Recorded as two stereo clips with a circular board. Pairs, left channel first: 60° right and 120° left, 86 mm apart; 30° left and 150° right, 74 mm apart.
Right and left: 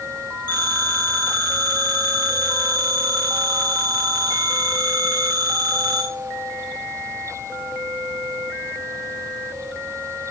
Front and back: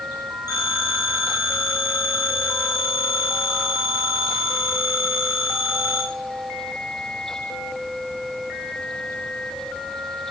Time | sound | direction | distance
0.5 | a phone ringing | 55° left | 6 m